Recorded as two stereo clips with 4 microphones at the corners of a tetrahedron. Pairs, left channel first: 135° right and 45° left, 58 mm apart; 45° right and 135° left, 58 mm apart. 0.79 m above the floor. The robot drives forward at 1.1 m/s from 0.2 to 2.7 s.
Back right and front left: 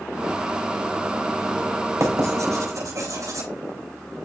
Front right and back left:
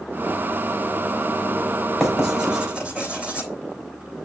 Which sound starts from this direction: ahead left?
Writing, at 2.0 s.